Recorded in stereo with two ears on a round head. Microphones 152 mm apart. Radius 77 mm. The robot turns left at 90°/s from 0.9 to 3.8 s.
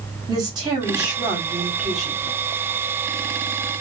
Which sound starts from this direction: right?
A woman speaking, at 0.3 s.